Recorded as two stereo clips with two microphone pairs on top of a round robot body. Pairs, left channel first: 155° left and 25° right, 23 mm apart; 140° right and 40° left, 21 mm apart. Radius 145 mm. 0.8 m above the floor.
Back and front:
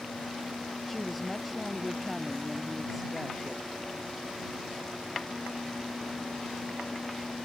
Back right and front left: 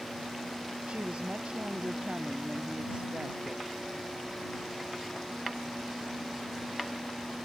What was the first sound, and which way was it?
A woman speaking, 70° left.